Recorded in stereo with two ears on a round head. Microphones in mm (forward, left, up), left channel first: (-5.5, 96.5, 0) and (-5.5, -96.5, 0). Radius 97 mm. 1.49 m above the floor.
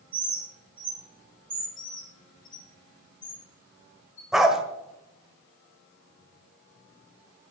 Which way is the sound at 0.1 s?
25° right (ahead or behind).